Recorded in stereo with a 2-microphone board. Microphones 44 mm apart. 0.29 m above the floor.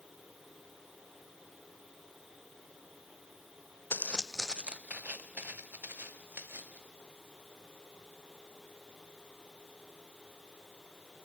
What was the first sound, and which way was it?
Footsteps, 50° left (ahead or behind).